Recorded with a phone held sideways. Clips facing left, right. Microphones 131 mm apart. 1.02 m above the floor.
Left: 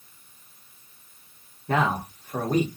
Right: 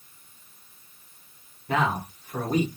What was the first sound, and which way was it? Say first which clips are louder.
A man speaking: left 1 dB; 45° left (ahead or behind).